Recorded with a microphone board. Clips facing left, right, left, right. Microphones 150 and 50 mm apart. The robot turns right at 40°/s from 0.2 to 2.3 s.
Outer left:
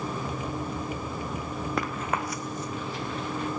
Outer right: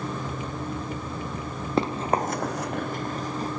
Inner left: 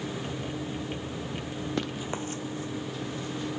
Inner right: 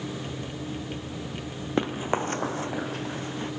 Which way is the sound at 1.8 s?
30° right (ahead or behind).